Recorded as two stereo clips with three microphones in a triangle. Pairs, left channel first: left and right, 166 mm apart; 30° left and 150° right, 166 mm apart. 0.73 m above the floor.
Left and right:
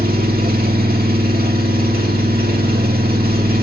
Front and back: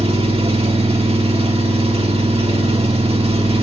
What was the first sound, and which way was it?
An engine running, 100° right.